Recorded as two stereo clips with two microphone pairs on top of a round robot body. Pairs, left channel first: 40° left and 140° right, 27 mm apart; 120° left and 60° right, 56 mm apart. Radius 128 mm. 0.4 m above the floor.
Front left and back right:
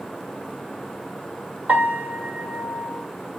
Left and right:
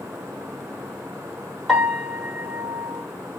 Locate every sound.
1.7 s a piano: 150° right, 1.6 m